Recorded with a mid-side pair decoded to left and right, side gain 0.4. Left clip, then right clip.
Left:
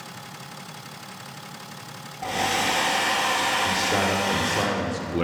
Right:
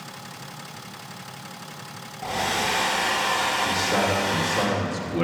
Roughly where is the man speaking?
Ahead.